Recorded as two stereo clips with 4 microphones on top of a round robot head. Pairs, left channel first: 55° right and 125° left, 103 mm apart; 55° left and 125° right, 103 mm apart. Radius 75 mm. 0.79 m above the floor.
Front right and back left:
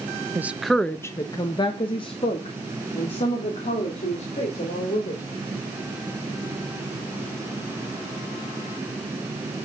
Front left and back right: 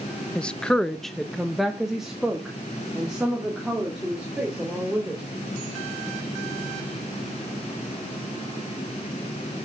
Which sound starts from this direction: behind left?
A woman speaking, at 0.3 s.